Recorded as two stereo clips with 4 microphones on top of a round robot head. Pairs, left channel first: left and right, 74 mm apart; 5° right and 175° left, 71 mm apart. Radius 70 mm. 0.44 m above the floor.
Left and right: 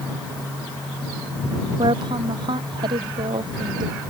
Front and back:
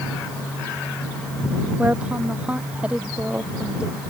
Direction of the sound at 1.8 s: 105° right.